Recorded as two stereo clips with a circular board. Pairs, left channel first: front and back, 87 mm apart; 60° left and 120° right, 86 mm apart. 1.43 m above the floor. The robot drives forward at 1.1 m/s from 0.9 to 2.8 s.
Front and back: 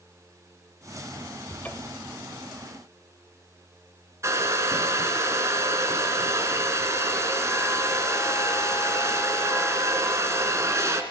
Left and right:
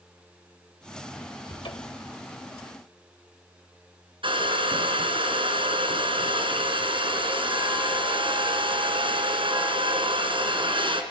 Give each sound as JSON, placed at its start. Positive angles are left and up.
{"t": 1.5, "sound": "a cupboard door", "azimuth_deg": 70, "distance_m": 3.0}
{"t": 4.2, "sound": "a hair dryer", "azimuth_deg": -125, "distance_m": 3.5}